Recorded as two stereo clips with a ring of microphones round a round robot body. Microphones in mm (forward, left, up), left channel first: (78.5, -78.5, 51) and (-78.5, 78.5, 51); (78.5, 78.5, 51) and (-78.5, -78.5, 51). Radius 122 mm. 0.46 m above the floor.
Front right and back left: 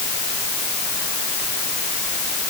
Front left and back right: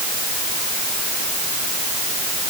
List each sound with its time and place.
Only background noise.